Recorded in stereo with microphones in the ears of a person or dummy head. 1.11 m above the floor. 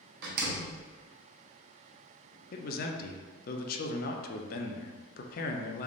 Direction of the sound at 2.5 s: 50° left (ahead or behind).